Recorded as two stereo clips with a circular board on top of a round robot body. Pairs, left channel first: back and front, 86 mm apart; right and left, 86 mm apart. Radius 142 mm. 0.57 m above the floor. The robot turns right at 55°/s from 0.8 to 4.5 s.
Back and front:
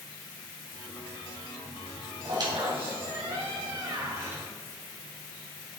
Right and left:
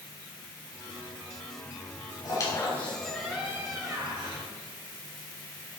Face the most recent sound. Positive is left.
turn(degrees=75)